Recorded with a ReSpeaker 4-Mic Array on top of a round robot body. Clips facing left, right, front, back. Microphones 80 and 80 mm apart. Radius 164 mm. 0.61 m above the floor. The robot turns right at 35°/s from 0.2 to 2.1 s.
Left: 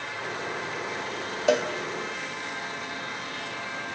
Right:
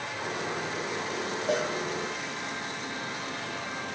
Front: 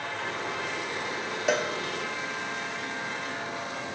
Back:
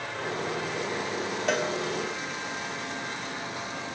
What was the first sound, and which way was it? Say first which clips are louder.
A cowbell: left 6 dB, front 1 dB; 85° left.